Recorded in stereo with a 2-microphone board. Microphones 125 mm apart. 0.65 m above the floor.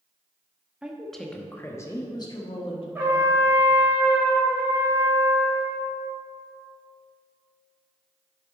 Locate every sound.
0.8 s a woman speaking: 10° right (ahead or behind), 1.0 m; by 2.9 s 45° left (ahead or behind), 1.3 m
3.0 s a trumpet: 15° right (ahead or behind), 1.8 m